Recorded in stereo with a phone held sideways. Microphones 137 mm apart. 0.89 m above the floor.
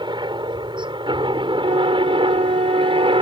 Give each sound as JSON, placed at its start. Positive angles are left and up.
{"t": 0.0, "sound": "a helicopter", "side_deg": -35}
{"t": 1.6, "sound": "a flute", "side_deg": -70}